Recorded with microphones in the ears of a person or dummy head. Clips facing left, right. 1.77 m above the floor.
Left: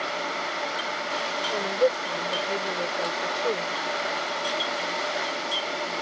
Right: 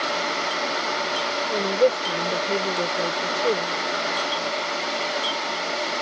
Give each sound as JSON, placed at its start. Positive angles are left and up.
{"t": 1.5, "sound": "a woman speaking", "side_deg": -30}